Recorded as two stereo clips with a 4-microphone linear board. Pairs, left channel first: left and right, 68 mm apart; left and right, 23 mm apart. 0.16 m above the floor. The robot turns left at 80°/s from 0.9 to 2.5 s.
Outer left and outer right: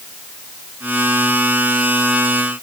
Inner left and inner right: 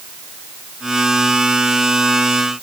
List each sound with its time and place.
Only background noise.